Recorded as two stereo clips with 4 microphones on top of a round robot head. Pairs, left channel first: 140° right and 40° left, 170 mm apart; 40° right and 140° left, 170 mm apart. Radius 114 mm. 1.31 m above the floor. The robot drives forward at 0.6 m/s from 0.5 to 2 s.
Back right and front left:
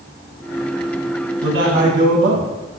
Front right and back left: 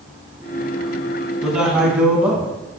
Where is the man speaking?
50° left, 6 m; by 2.5 s 55° left, 5.5 m.